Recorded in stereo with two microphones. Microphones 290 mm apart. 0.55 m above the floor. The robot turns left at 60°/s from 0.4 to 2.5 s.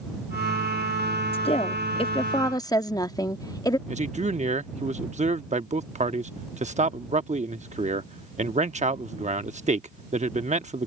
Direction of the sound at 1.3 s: 20° left (ahead or behind).